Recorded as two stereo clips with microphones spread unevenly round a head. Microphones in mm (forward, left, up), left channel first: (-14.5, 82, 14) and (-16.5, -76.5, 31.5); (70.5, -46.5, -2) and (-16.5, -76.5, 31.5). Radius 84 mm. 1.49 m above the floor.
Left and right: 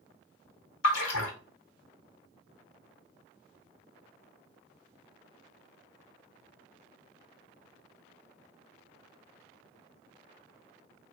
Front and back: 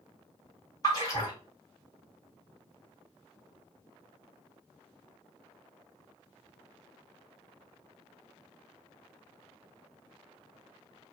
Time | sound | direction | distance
0.8 | a splash | 90° left | 1.0 m